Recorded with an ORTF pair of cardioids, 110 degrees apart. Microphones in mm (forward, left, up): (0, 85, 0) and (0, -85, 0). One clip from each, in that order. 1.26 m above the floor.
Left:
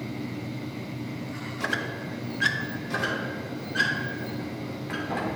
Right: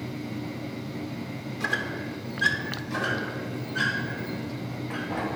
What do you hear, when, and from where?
1.6 s a squeak: 20° left, 0.8 m
2.9 s a squeak: 70° left, 2.5 m